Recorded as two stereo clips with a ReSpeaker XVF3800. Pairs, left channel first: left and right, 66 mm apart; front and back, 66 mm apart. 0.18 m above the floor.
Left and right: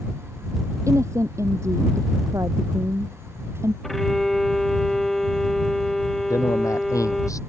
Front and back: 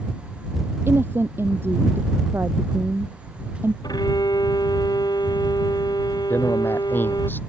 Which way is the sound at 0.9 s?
125° right.